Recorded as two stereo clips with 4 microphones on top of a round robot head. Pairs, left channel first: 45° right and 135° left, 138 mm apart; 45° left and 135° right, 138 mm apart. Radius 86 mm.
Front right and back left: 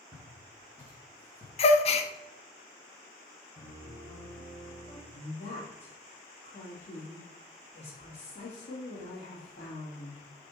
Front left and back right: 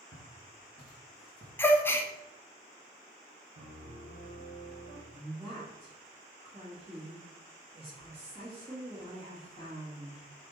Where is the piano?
105° right, 1.0 m.